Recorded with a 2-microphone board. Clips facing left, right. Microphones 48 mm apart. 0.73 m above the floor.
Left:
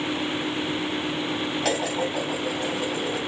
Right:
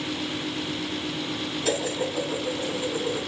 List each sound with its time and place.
1.6 s dishes clattering: 80° left, 3 m